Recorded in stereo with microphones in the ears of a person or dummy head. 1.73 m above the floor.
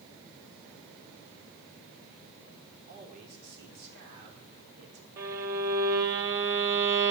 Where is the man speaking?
45° right (ahead or behind), 4.5 m; by 5.1 s 80° right, 5 m.